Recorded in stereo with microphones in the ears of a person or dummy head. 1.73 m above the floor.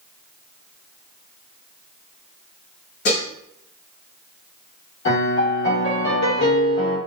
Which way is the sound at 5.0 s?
75° left (ahead or behind).